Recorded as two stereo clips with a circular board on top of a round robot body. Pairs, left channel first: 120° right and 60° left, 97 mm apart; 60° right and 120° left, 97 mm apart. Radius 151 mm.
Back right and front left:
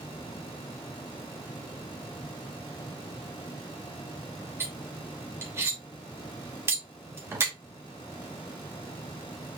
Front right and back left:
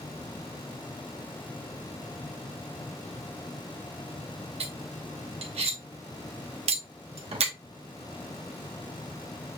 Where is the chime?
No chime in this recording.